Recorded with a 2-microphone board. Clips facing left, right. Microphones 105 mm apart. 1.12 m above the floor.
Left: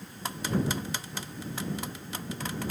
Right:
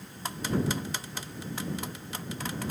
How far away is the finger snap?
No finger snap in this recording.